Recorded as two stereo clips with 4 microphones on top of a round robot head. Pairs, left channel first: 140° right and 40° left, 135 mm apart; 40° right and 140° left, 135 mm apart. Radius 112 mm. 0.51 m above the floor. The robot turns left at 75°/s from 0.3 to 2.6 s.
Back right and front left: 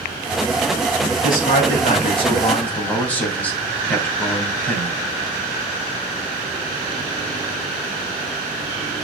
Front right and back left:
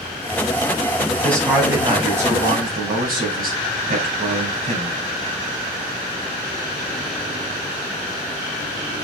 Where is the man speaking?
105° right, 4 m; by 5.0 s 140° left, 4 m.